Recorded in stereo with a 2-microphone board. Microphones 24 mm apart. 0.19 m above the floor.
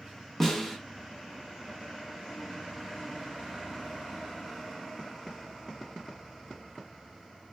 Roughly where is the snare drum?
Centre.